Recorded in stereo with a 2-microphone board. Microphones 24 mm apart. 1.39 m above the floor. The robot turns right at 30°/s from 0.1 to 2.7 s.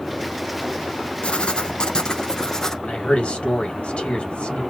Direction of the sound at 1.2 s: 110° left.